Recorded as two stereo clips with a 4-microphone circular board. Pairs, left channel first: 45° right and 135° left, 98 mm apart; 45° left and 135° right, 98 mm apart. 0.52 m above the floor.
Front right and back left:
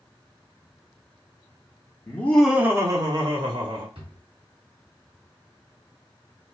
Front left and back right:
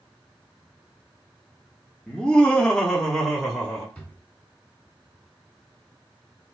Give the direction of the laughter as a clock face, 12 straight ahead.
1 o'clock.